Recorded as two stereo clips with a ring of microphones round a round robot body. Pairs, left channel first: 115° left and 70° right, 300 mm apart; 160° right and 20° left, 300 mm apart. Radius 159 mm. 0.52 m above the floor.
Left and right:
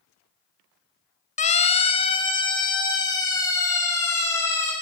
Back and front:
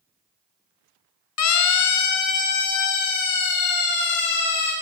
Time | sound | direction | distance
1.4 | a siren | 175° left | 4 m